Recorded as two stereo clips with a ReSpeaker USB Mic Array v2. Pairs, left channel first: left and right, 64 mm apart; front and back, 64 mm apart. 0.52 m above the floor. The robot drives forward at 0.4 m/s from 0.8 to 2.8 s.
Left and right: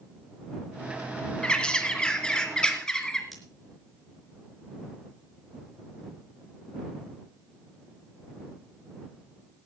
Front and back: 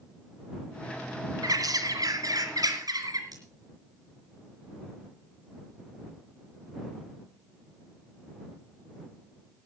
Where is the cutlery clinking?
Straight behind, 4 m.